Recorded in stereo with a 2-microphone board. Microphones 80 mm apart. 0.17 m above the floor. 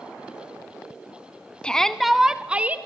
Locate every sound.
1.6 s a shout: 10° left (ahead or behind), 1.2 m; by 2.8 s 20° right (ahead or behind), 1.5 m